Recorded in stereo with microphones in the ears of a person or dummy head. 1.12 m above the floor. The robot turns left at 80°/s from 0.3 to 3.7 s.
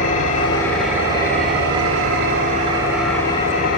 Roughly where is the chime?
I don't hear a chime.